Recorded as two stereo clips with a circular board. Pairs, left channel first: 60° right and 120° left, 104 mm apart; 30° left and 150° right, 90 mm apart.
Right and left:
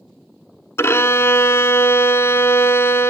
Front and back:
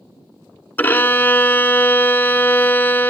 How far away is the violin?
About 0.5 m.